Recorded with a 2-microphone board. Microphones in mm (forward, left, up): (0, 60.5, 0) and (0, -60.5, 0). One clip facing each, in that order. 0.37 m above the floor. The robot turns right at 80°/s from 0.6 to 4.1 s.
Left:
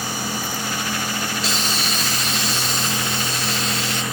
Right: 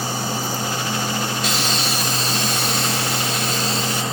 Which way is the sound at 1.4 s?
145° left.